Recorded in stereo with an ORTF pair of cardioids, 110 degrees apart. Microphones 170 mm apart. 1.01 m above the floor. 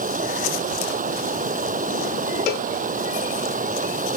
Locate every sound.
0.0 s running water: 50° right
2.5 s a cowbell: 70° left